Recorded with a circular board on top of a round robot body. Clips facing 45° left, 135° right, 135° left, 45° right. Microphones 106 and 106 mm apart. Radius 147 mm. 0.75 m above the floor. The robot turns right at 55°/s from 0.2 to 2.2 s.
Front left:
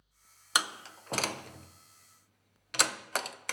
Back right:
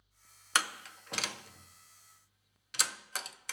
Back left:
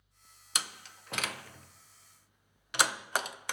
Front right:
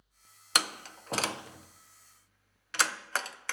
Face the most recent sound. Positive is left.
turn(degrees=60)